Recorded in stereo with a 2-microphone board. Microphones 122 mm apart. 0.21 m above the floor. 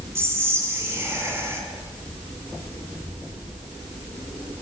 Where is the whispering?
20° right (ahead or behind), 2 m.